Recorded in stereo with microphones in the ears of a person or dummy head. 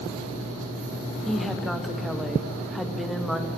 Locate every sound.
1.3 s a woman speaking: 10° right (ahead or behind), 1.4 m